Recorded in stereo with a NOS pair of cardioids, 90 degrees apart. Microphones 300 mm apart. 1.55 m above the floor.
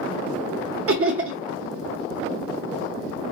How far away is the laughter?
About 0.8 m.